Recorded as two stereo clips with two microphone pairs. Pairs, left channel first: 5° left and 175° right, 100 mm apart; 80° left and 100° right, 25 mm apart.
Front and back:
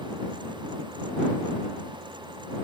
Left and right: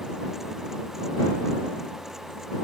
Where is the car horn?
I don't hear a car horn.